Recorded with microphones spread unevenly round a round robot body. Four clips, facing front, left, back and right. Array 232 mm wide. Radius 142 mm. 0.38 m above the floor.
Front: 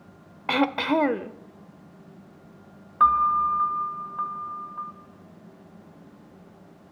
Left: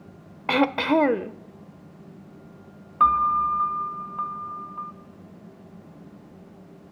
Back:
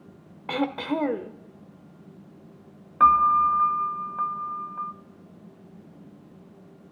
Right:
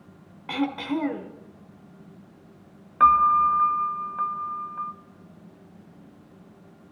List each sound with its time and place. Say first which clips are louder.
0.5 s throat clearing: left 6 dB, front 4 dB; 90° left, 0.8 m
3.0 s a piano: right 2 dB, back 2 dB; 165° left, 0.5 m